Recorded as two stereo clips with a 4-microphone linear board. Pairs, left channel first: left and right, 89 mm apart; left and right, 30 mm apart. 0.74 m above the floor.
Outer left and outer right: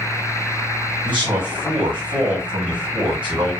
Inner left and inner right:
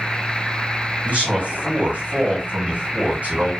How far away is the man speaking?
About 1.8 m.